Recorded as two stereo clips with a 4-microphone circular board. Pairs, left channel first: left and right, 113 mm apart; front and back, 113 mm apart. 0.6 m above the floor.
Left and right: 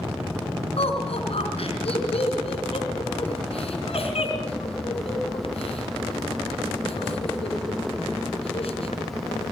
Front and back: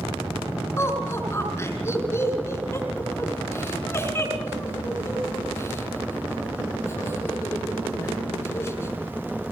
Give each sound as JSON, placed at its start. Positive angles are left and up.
{"t": 0.8, "sound": "laughter", "azimuth_deg": 65, "distance_m": 5.5}